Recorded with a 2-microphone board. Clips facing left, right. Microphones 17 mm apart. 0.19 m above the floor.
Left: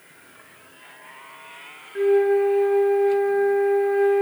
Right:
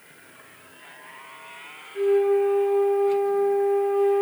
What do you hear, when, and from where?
1.9 s a flute: 70° left (ahead or behind), 1.0 m